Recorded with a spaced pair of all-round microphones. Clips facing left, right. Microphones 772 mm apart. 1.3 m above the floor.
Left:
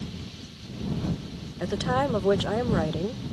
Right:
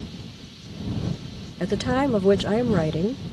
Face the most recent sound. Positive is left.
turn(degrees=-60)  # may be behind; listen again after turning